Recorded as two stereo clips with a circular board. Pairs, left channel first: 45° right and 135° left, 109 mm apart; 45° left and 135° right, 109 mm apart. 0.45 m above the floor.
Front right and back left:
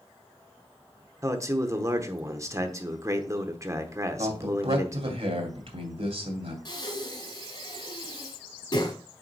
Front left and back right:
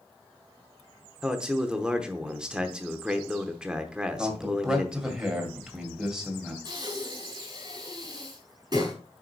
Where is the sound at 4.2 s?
140° left, 2.0 m.